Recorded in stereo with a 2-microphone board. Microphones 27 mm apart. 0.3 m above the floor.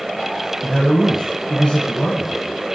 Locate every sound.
0.6 s a man speaking: 25° left (ahead or behind), 2 m